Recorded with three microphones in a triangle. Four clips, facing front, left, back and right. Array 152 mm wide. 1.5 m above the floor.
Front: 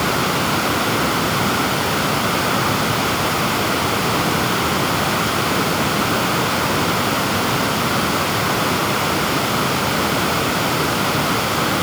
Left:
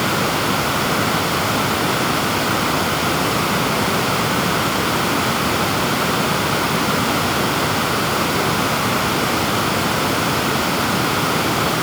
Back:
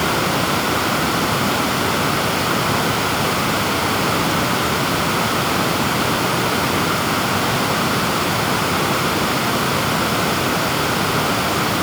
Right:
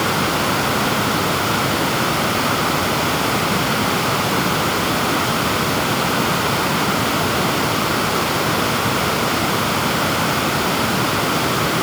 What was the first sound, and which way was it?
Only background noise.